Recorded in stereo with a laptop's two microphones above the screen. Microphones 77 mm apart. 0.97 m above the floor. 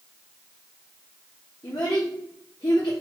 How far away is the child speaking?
About 0.7 m.